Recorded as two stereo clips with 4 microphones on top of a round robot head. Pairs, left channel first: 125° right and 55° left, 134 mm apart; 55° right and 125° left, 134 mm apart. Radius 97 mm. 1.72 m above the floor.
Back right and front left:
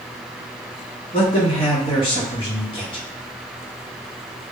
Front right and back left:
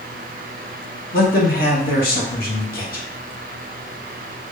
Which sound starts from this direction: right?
A man speaking, at 1.1 s.